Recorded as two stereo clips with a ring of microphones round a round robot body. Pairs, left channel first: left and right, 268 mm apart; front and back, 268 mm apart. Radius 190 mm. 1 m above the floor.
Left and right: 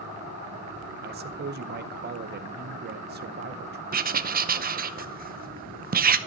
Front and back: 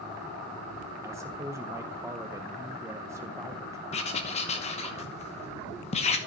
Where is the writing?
55° right, 0.9 m.